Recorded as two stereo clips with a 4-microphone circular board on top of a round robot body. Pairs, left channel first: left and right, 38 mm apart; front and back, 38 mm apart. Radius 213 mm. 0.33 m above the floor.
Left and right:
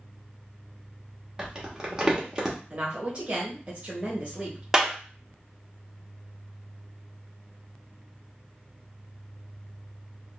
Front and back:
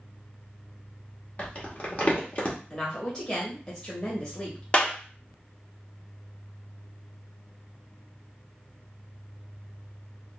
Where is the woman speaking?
60° right, 1.4 m.